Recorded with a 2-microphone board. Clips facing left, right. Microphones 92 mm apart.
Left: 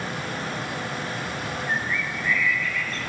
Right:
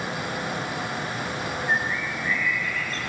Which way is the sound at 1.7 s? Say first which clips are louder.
Right 2 dB; 35° right (ahead or behind).